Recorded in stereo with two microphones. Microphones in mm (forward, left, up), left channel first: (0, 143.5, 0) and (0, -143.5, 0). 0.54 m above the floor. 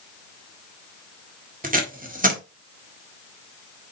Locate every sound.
1.6 s tape being pulled: 30° right (ahead or behind), 1.7 m